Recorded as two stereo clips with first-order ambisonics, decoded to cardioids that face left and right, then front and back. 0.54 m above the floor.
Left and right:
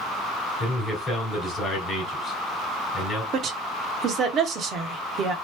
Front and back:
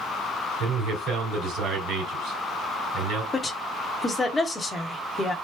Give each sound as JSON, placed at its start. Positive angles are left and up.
{"t": 0.6, "sound": "a man speaking", "azimuth_deg": 155, "distance_m": 2.0}
{"t": 3.3, "sound": "a woman speaking", "azimuth_deg": -70, "distance_m": 0.8}